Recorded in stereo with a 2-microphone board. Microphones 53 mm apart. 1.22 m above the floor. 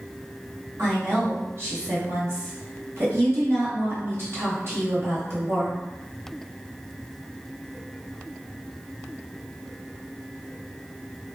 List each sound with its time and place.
0.8 s a woman speaking: 55° right (ahead or behind), 1.0 m